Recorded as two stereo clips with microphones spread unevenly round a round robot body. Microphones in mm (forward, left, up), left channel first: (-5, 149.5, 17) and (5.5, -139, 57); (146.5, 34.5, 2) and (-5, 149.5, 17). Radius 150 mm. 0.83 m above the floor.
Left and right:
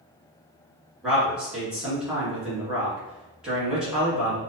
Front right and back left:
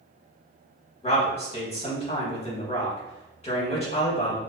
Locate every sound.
1.0 s a man speaking: 5° left, 1.2 m